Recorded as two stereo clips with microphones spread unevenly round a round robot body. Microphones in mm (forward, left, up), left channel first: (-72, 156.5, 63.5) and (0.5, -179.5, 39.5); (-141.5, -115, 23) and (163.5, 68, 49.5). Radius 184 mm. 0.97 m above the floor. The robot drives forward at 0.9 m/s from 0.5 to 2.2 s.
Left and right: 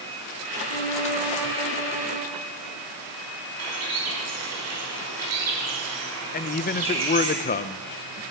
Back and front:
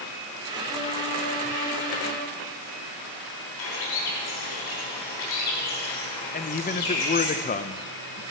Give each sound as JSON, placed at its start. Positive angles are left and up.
{"t": 0.7, "sound": "a violin", "azimuth_deg": 130, "distance_m": 3.0}
{"t": 3.6, "sound": "a bird", "azimuth_deg": -125, "distance_m": 3.5}
{"t": 6.3, "sound": "a man speaking", "azimuth_deg": 160, "distance_m": 0.5}